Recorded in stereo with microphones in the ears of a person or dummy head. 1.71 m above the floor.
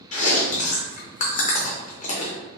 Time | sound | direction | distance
0.1 | chewing | 40° left (ahead or behind) | 0.6 m